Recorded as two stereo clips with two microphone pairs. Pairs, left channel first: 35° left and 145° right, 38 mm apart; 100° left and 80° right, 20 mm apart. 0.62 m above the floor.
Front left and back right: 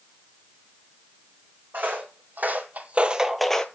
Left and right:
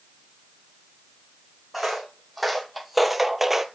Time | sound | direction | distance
1.7 | footsteps | 175° right | 1.7 m